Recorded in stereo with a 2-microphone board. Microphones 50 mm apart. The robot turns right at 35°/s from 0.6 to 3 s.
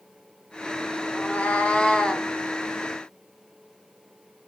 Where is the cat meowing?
125° left, 0.6 m; by 2.3 s 165° left, 0.6 m.